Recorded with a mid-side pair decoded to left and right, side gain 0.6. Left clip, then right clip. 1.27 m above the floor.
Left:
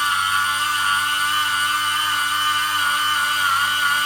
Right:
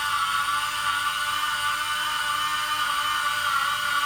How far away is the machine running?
About 6 m.